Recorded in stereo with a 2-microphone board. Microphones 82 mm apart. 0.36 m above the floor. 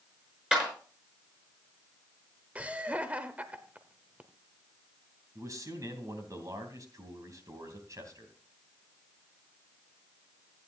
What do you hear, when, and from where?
0.5 s a clap: 10° right (ahead or behind), 5 m
2.5 s laughter: 20° right (ahead or behind), 0.9 m
5.3 s a man speaking: 50° right (ahead or behind), 3 m